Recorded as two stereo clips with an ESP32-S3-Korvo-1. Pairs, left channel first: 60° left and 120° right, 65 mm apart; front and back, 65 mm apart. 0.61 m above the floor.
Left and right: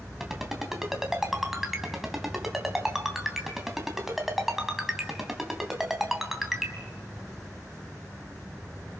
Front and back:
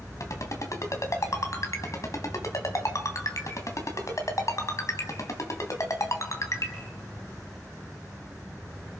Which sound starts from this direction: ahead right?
A ringtone, at 0.2 s.